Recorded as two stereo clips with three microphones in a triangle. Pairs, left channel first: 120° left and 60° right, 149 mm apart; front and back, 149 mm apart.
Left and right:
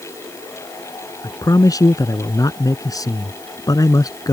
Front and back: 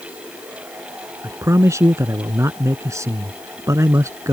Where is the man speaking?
140° left.